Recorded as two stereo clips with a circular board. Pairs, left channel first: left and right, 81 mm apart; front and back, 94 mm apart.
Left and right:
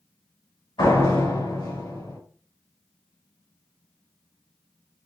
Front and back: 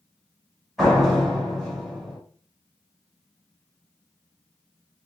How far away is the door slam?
About 2.5 m.